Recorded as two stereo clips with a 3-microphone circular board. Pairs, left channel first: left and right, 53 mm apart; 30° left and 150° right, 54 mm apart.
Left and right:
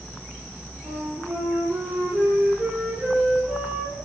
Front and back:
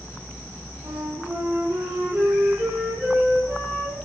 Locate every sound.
0.8 s a flute: 150° right, 3 m